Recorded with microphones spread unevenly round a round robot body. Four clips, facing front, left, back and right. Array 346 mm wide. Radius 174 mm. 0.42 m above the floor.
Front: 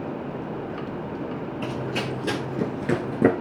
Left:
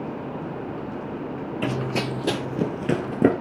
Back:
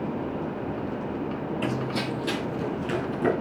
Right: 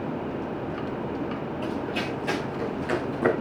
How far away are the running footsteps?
About 0.8 m.